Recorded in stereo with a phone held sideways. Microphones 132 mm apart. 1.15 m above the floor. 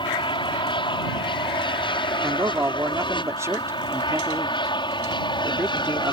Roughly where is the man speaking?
Right.